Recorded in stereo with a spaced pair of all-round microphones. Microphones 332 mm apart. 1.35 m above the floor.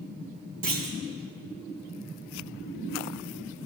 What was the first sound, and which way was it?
A clunk, 80° right.